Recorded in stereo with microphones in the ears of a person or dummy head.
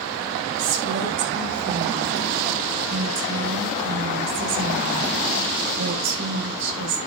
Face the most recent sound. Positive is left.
turn(degrees=-75)  # may be behind; listen again after turning